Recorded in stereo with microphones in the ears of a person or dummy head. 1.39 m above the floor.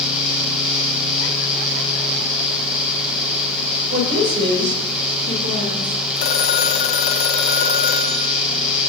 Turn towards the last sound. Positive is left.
turn(degrees=65)  # may be behind; listen again after turning